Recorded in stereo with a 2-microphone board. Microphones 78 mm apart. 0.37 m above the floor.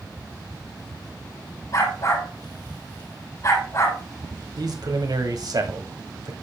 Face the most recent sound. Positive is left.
turn(degrees=-60)  # may be behind; listen again after turning